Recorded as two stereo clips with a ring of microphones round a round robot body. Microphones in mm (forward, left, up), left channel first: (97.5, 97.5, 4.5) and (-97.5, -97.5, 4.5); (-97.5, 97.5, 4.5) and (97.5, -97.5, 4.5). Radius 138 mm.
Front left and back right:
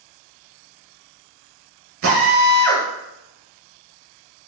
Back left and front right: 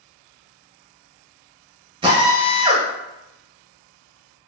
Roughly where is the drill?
Behind right.